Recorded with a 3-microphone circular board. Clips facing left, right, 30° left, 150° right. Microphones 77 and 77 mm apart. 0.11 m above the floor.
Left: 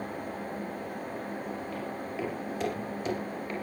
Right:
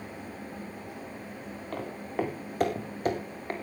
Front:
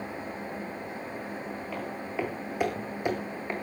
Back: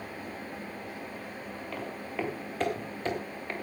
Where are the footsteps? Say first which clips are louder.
Right 2 dB, front 1 dB; 55° right, 5.5 m; by 3.5 s 40° right, 4.5 m.